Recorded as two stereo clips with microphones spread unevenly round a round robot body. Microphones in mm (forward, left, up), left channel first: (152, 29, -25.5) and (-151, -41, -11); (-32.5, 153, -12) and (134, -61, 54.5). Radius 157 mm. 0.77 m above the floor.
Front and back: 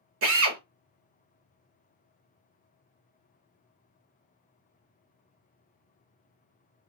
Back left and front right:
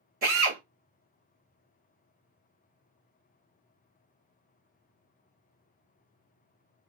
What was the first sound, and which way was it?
A drill, 115° right.